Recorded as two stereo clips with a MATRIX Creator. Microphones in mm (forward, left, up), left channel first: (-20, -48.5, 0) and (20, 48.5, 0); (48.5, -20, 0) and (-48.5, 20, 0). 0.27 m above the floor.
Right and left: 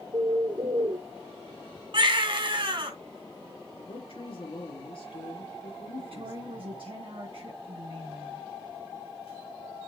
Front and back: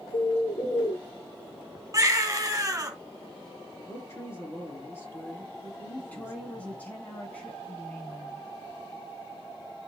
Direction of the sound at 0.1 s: 20° left.